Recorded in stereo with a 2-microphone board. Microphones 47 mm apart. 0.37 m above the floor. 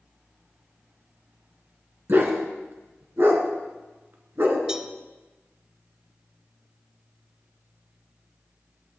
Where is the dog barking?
50° right (ahead or behind), 1.3 m.